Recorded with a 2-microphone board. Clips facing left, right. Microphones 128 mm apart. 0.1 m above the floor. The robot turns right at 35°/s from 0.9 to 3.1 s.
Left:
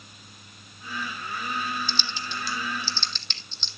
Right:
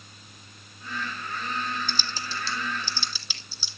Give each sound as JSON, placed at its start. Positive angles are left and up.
{"t": 1.9, "sound": "typing on a keyboard", "side_deg": -50, "distance_m": 1.0}